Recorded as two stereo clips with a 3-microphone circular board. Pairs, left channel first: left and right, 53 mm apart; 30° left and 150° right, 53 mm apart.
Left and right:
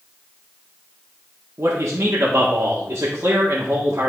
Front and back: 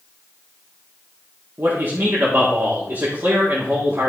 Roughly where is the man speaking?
Behind right.